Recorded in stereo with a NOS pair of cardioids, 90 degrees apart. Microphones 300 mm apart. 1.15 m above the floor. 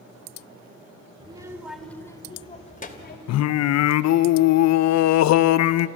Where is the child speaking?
15° right, 2.0 m; by 3.2 s 35° left, 2.5 m.